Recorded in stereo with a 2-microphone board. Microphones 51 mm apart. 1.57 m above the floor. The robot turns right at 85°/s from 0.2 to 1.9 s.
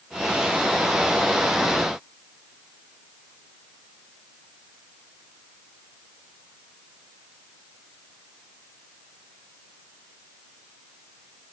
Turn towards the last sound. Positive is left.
No sound to turn to.